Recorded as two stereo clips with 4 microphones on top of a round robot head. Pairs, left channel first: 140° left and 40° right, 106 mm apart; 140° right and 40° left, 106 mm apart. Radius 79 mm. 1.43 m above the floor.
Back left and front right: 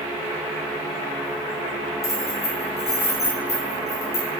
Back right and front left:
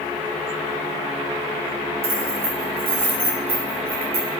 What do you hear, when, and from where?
2.0 s keys jangling: 75° left, 4 m